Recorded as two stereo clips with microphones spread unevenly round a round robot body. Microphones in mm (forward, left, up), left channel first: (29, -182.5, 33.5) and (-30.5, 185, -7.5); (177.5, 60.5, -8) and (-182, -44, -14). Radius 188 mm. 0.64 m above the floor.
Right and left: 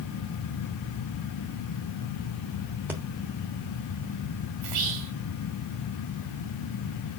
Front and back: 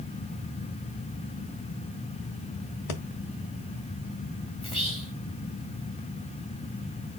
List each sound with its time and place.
2.9 s breathing: 15° left, 1.2 m
4.6 s whispering: 90° left, 2.5 m